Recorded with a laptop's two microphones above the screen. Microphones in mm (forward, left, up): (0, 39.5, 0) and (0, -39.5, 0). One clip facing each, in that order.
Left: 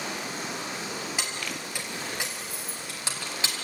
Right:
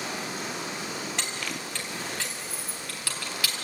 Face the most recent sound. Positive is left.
turn(degrees=25)  # may be behind; listen again after turning